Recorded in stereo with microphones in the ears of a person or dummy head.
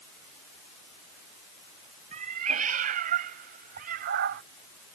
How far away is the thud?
I don't hear a thud.